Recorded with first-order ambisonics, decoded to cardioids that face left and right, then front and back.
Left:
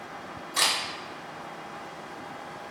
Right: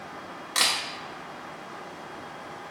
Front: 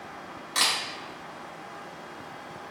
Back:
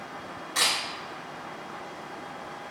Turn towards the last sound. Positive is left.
turn(degrees=-70)